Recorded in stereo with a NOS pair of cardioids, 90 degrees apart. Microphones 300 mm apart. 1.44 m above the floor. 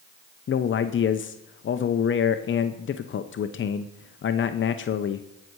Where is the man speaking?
40° left, 0.8 m.